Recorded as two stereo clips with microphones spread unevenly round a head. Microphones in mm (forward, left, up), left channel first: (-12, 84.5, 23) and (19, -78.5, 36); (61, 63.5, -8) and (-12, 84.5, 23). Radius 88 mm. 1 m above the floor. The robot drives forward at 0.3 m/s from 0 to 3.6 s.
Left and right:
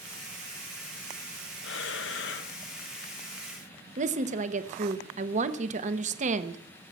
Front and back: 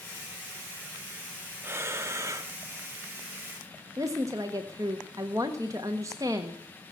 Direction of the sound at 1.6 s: 110° left.